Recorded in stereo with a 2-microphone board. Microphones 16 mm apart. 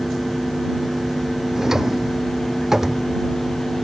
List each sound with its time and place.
1.6 s a drawer: 30° right (ahead or behind)